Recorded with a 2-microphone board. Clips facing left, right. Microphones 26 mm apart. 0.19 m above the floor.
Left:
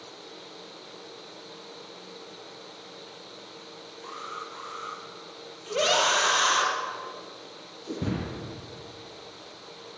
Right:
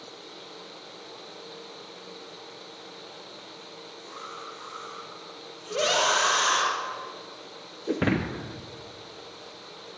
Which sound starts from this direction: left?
An alarm, at 4.0 s.